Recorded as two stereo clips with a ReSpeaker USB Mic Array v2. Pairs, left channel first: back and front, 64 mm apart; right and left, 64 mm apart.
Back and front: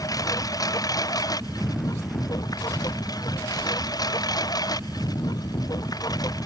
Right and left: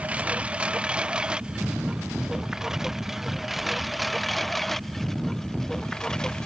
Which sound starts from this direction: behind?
A lawn mower, at 0.0 s.